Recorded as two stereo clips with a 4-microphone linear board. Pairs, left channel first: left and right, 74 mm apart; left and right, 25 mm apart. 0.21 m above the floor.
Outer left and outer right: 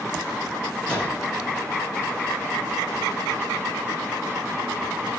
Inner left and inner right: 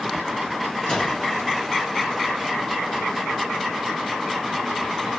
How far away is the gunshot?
About 2.5 m.